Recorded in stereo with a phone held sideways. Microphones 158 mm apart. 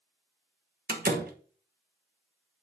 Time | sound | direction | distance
0.9 | a door slam | 70° right (ahead or behind) | 1.0 m